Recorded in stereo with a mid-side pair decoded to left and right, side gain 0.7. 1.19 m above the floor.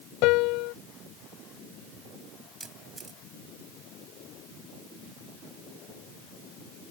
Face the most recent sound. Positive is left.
turn(degrees=-20)